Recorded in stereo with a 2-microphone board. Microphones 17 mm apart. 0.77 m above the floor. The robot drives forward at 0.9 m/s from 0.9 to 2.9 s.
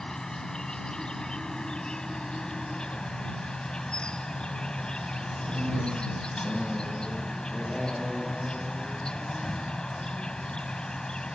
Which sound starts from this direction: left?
An insect, at 0.0 s.